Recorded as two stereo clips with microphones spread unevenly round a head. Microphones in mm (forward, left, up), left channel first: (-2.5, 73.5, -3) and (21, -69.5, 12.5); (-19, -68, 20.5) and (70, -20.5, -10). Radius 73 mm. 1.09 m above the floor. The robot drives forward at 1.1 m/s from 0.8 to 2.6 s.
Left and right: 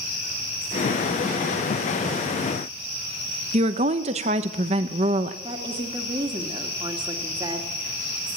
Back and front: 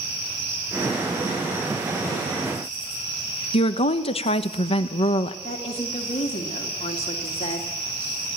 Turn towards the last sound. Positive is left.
turn(degrees=-140)